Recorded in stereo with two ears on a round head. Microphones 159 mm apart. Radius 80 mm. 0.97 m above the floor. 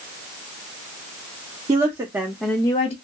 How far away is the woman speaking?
About 1.0 m.